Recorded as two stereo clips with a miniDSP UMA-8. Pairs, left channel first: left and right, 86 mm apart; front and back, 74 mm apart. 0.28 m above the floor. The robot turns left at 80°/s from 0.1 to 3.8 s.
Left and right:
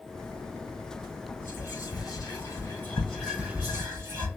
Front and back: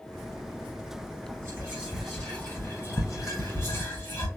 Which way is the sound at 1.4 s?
145° left.